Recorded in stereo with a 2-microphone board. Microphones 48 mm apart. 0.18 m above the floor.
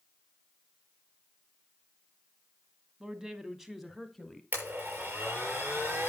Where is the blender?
45° right (ahead or behind), 7 m.